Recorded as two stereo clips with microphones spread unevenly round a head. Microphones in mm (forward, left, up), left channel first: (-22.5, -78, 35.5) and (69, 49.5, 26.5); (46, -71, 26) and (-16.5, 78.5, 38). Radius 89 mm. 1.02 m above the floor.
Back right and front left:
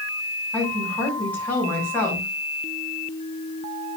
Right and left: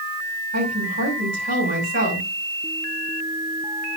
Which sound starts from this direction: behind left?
A woman speaking, at 0.5 s.